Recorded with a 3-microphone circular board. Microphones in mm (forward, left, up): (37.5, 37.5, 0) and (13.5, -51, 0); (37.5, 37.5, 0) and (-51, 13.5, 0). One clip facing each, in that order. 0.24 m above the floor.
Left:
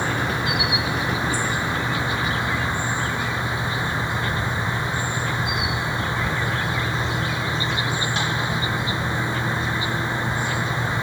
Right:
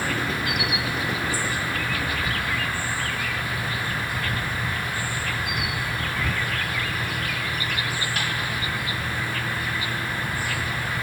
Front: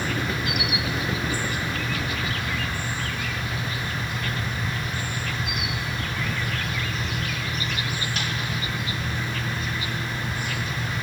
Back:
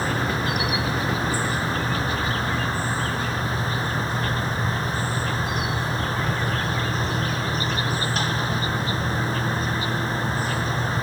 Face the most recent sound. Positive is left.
turn(degrees=140)